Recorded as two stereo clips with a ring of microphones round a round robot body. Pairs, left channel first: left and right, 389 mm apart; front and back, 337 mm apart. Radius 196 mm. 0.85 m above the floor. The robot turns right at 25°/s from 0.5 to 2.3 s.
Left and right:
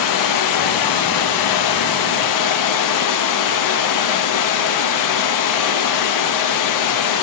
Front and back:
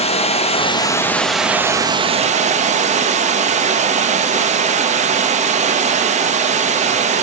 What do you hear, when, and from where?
0.0 s running water: 70° left, 1.0 m; by 7.2 s 115° left, 1.0 m